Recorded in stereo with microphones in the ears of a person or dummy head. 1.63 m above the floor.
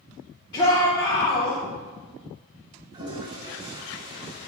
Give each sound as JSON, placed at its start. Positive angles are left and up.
{"t": 0.5, "sound": "a shout", "side_deg": 25, "distance_m": 1.2}
{"t": 2.9, "sound": "a toilet flushing", "side_deg": -20, "distance_m": 0.7}